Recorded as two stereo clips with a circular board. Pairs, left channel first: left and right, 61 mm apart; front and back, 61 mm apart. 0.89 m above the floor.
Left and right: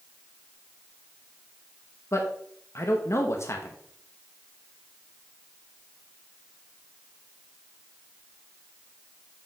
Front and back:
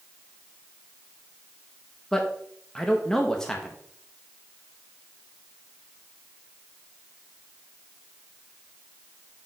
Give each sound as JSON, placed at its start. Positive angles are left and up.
{"t": 2.1, "sound": "a man speaking", "azimuth_deg": 80, "distance_m": 0.9}